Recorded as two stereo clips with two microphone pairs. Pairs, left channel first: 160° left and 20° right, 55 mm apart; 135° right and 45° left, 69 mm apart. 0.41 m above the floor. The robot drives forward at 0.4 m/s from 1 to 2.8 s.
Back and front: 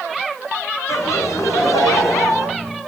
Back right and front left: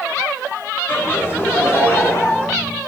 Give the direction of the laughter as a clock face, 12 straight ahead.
6 o'clock.